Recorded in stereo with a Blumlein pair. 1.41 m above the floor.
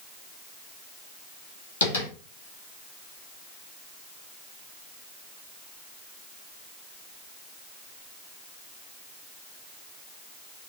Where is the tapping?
65° left, 1.4 m.